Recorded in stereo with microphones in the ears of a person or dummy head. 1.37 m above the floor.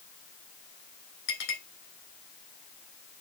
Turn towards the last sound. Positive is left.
turn(degrees=70)  # may be behind; listen again after turning